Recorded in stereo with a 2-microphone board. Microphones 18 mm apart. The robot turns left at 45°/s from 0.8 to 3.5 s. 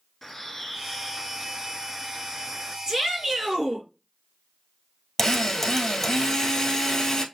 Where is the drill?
15° left (ahead or behind), 1.4 m.